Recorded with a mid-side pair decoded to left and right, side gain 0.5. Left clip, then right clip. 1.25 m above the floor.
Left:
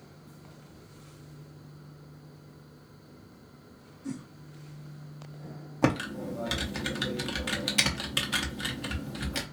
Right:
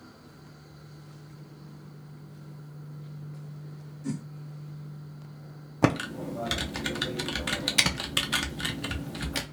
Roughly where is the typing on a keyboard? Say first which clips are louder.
Right 2 dB; ahead.